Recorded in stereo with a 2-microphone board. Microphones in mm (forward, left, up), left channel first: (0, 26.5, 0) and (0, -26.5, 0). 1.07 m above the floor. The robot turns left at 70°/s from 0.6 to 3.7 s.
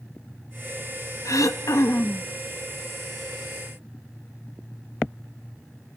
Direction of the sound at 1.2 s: 105° left.